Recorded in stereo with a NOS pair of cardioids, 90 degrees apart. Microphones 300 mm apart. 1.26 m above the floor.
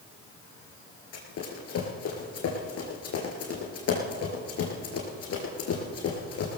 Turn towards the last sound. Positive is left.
turn(degrees=55)